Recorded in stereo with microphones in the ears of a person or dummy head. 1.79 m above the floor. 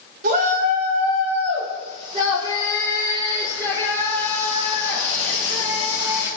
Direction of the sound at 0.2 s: 45° right (ahead or behind).